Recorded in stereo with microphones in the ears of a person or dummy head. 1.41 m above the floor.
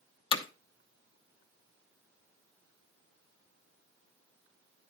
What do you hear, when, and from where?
0.3 s hammering: 30° left (ahead or behind), 0.9 m